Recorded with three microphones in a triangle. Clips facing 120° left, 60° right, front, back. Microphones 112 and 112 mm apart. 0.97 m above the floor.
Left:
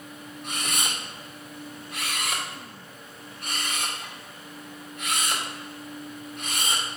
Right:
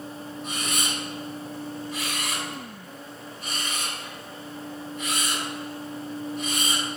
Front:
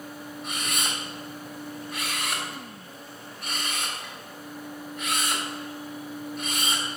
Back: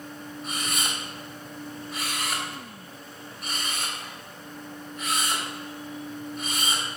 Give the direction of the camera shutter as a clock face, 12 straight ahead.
9 o'clock.